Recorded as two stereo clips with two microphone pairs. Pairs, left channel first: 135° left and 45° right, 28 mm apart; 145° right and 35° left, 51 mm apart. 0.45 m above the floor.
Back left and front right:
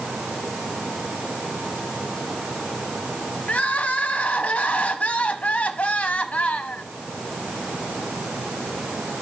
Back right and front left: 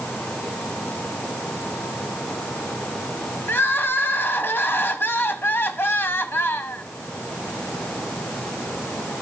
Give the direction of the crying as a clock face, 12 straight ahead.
6 o'clock.